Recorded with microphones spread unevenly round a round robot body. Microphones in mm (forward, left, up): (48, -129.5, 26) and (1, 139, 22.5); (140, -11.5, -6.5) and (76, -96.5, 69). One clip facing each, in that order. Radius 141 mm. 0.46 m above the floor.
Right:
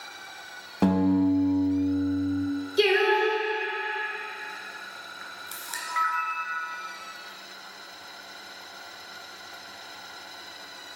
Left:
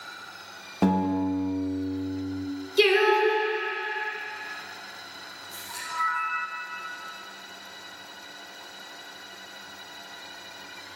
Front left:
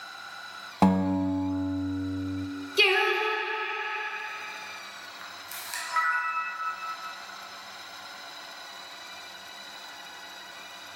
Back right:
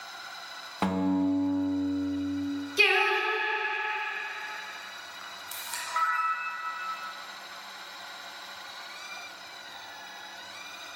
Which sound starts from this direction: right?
A camera shutter, at 5.2 s.